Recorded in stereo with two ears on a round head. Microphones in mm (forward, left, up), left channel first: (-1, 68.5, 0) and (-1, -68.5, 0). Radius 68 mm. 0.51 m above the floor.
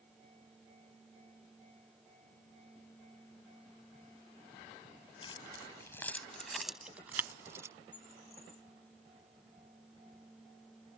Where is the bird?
35° left (ahead or behind).